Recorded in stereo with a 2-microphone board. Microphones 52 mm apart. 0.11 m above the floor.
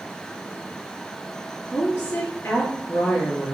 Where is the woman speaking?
25° left (ahead or behind), 1.6 m.